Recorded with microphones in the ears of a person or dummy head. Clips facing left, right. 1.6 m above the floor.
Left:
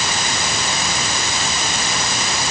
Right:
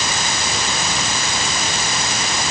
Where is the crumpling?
No crumpling in this recording.